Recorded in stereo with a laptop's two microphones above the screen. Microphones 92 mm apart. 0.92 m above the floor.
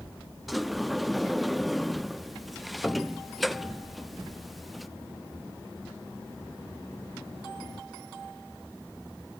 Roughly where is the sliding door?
Centre.